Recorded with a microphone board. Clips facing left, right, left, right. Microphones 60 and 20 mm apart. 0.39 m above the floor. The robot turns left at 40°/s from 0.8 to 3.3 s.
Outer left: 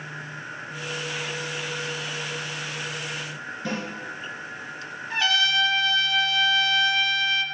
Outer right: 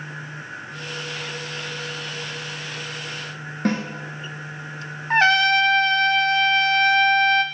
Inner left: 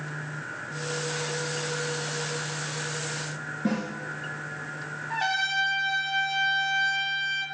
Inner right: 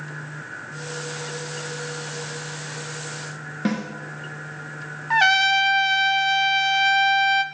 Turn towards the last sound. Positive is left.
turn(degrees=-45)  # may be behind; listen again after turning